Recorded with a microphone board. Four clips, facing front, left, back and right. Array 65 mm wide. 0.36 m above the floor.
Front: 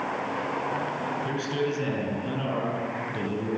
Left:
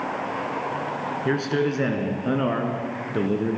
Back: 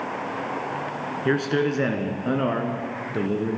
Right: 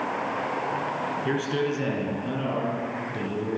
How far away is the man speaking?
About 3.5 m.